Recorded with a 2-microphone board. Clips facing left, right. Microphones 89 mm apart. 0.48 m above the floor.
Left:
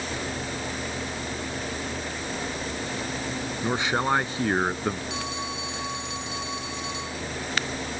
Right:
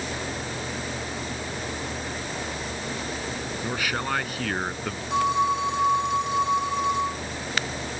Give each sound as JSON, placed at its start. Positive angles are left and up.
{"t": 3.6, "sound": "a man speaking", "side_deg": 25}
{"t": 5.1, "sound": "a phone ringing", "side_deg": -50}